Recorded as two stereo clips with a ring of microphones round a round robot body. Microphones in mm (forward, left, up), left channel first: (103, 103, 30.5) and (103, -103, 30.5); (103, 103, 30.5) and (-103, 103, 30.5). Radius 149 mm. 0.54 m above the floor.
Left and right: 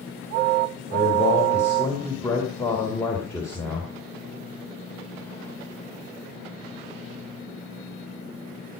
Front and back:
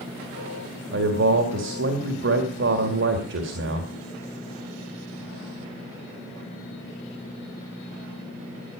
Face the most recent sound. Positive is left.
turn(degrees=170)